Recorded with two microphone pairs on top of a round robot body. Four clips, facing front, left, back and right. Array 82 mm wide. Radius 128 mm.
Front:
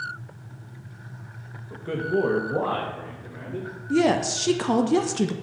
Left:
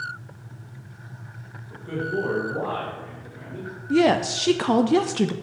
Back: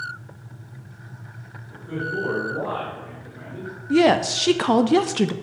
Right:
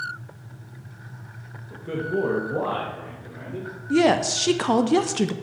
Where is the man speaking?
10° right, 1.4 m; by 3.7 s 50° right, 3 m.